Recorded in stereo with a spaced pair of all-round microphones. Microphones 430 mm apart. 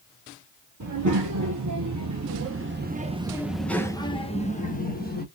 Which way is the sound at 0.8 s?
45° right (ahead or behind).